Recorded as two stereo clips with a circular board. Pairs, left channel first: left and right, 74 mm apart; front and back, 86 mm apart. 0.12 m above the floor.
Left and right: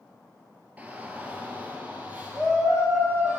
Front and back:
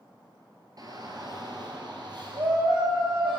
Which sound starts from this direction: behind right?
A shout, at 0.8 s.